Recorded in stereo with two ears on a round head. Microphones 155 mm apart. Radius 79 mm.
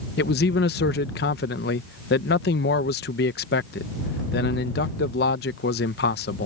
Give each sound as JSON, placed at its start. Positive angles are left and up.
{"t": 0.2, "sound": "a man speaking", "side_deg": 60}